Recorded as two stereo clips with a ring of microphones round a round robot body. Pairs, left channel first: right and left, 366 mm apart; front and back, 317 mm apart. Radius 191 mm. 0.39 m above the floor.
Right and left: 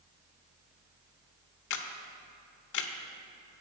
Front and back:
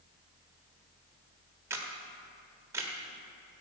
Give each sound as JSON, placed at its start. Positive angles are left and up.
{"t": 1.7, "sound": "a camera shutter", "azimuth_deg": -100, "distance_m": 1.0}